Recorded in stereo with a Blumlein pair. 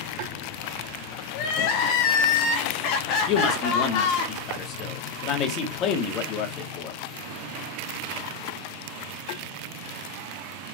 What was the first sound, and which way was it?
Crying, 40° left.